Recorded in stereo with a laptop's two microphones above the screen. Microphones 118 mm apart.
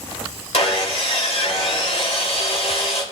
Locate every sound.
0.5 s sawing: 60° left (ahead or behind), 3 m